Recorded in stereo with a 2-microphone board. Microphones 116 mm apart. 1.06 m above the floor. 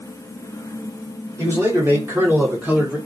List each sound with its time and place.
1.4 s a man speaking: 25° right (ahead or behind), 2 m; by 3.0 s 10° right (ahead or behind), 1.2 m